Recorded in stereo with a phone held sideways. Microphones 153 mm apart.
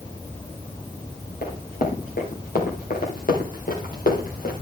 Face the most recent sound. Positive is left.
turn(degrees=65)  # may be behind; listen again after turning